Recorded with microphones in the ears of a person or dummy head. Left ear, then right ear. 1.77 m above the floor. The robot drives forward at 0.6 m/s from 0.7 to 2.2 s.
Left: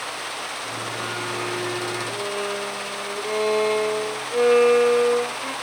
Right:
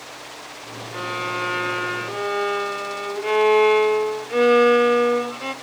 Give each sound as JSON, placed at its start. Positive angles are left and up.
{"t": 0.9, "sound": "a violin", "side_deg": -35, "distance_m": 0.9}